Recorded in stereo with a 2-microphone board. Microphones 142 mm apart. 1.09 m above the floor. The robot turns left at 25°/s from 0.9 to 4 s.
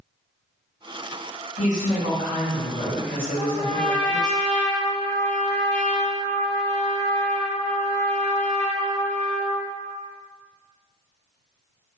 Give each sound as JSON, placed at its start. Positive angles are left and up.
{"t": 1.6, "sound": "a woman speaking", "azimuth_deg": 90, "distance_m": 1.7}
{"t": 3.4, "sound": "a trumpet", "side_deg": 0, "distance_m": 1.0}